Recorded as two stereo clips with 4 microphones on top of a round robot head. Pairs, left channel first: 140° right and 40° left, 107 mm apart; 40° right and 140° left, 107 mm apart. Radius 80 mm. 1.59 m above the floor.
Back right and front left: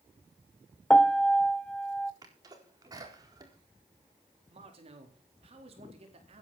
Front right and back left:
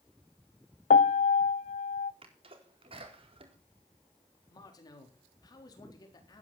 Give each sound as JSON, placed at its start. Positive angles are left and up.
{"t": 0.9, "sound": "a piano", "azimuth_deg": -55, "distance_m": 0.6}
{"t": 2.2, "sound": "a sneeze", "azimuth_deg": 100, "distance_m": 4.0}
{"t": 4.5, "sound": "a man speaking", "azimuth_deg": 15, "distance_m": 4.0}